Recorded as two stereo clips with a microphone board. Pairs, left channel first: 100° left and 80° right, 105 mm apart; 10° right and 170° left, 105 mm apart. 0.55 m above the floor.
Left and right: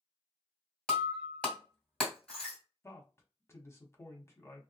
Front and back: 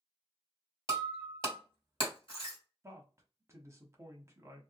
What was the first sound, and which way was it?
Breaking glass, 20° left.